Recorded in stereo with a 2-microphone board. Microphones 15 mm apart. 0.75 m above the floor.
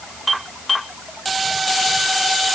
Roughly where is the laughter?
No laughter in this recording.